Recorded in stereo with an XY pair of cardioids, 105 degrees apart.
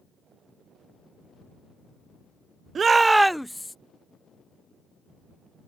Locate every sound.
2.8 s a shout: 45° right; by 3.8 s 15° left